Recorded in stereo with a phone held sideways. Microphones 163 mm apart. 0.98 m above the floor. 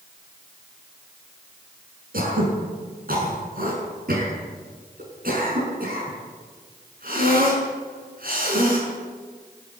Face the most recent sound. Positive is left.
turn(degrees=-65)  # may be behind; listen again after turning